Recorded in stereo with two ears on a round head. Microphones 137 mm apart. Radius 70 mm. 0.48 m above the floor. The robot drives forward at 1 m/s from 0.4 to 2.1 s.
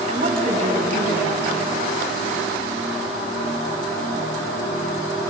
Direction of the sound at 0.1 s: 40° right (ahead or behind).